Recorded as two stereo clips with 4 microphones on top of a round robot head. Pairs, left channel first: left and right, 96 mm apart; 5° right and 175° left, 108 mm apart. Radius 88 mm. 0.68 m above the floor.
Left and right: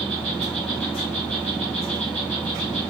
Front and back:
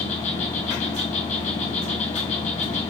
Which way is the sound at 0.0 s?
10° left.